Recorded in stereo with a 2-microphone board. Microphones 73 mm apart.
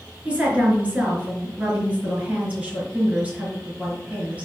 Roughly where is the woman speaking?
Centre.